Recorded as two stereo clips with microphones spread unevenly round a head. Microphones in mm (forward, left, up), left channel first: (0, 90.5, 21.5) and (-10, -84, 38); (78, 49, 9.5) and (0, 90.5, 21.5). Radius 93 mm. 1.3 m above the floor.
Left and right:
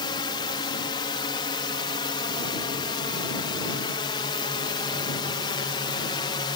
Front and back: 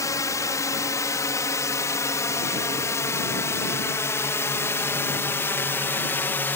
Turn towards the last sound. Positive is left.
turn(degrees=30)